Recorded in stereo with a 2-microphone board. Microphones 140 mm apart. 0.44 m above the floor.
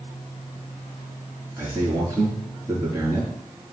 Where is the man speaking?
20° right (ahead or behind), 4.5 m.